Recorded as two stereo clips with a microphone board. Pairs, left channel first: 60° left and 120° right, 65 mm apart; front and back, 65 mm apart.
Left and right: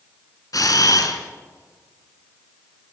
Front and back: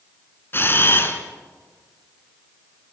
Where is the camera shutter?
50° left, 2.5 m.